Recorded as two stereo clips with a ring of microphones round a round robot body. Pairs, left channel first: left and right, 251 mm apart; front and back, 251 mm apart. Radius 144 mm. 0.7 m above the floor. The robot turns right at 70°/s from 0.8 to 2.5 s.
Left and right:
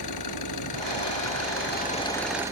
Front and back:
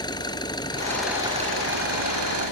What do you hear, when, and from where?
0.0 s an engine running: 75° left; by 2.5 s 165° right